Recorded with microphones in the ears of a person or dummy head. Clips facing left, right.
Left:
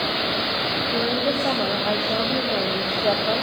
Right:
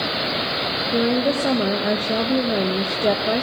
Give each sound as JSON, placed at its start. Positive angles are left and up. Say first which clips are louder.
{"t": 0.9, "sound": "a woman speaking", "louder": "right 5 dB", "side_deg": -30, "distance_m": 0.7}